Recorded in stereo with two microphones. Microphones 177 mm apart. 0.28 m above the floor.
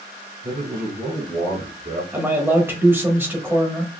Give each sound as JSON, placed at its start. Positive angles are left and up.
{"t": 0.4, "sound": "a man speaking", "side_deg": -50, "distance_m": 2.5}
{"t": 2.1, "sound": "a man speaking", "side_deg": -10, "distance_m": 0.9}